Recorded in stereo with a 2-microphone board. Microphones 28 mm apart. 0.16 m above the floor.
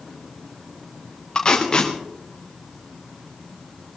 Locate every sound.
1.4 s tape being pulled: 30° left (ahead or behind), 3.5 m